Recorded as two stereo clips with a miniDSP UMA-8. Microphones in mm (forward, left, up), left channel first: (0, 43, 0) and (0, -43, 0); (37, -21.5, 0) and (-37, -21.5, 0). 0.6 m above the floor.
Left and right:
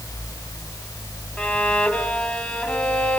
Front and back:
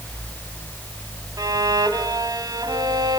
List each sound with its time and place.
1.4 s a violin: 170° left, 2.5 m